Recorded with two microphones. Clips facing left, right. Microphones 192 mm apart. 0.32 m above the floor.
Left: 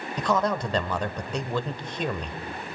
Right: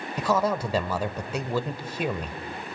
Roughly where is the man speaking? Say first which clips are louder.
Right 1 dB; centre.